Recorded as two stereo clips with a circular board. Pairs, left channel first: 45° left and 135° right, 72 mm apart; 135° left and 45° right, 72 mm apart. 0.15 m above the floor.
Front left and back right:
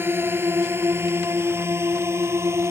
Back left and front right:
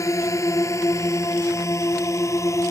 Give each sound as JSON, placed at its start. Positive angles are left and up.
{"t": 0.0, "sound": "a drone", "azimuth_deg": 170}